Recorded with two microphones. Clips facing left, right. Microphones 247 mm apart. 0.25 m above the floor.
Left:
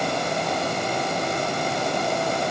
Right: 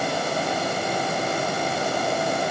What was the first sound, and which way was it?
Only background noise.